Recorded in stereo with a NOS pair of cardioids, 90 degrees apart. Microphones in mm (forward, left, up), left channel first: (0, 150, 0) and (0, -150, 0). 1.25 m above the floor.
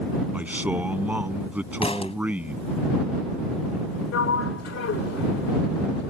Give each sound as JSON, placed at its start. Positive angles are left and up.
{"t": 0.3, "sound": "a man speaking", "azimuth_deg": -5}
{"t": 1.8, "sound": "a thud", "azimuth_deg": 20}
{"t": 4.1, "sound": "a sliding door", "azimuth_deg": 55}